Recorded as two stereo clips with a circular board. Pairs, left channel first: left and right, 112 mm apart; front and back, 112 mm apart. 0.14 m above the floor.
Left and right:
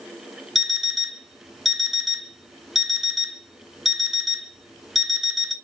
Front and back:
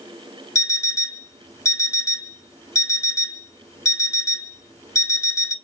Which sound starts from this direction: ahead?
An alarm clock, at 0.6 s.